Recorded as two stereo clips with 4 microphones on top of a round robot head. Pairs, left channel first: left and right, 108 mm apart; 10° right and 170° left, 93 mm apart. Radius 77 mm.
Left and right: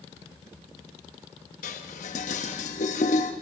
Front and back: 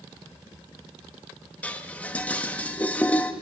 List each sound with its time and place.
1.6 s dishes clattering: 65° left, 0.9 m